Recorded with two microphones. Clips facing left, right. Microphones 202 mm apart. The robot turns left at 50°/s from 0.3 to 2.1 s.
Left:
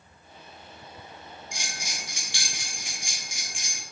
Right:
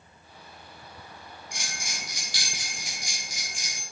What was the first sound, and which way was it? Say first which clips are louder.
A bell: even; 75° right (ahead or behind).